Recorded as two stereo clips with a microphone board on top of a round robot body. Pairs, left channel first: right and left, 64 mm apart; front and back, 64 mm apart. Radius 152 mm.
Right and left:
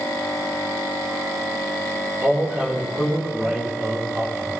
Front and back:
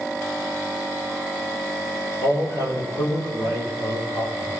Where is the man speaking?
20° left, 3.5 m.